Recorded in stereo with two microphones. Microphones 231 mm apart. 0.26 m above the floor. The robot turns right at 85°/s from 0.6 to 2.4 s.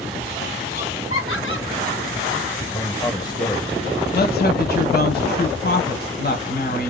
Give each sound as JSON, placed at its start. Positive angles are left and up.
{"t": 0.7, "sound": "laughter", "side_deg": 40, "distance_m": 2.0}
{"t": 2.7, "sound": "a man speaking", "side_deg": 15, "distance_m": 1.0}
{"t": 4.1, "sound": "a woman speaking", "side_deg": 45, "distance_m": 1.6}